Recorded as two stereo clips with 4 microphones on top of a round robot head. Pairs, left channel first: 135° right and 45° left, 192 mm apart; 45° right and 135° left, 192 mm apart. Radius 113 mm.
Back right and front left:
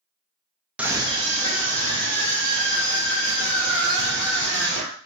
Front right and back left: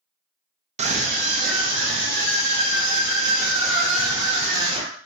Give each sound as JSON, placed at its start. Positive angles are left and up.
{"t": 0.8, "sound": "a scream", "azimuth_deg": 125, "distance_m": 0.6}